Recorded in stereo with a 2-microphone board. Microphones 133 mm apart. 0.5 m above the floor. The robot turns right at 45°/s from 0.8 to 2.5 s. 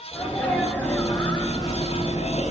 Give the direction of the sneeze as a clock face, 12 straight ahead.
11 o'clock.